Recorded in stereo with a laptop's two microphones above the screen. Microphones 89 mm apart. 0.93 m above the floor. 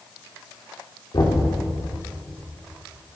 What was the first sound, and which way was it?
Knocking, 55° left (ahead or behind).